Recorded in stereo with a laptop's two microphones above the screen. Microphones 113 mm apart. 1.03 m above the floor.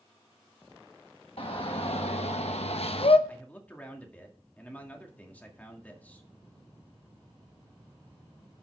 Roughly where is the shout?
Left.